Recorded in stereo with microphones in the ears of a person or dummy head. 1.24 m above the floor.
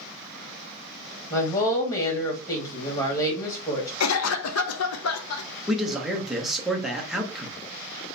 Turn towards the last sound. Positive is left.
turn(degrees=-5)  # may be behind; listen again after turning